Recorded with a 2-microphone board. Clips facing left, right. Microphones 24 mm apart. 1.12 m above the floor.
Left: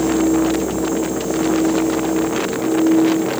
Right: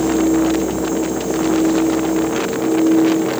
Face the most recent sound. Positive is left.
No sound to turn to.